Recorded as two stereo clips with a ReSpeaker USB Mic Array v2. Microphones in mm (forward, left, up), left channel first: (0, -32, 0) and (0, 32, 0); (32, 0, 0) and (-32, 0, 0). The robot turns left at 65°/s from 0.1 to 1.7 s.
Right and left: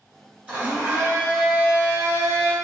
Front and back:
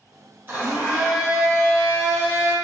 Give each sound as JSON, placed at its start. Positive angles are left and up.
{"t": 0.5, "sound": "a blender", "azimuth_deg": 150, "distance_m": 1.8}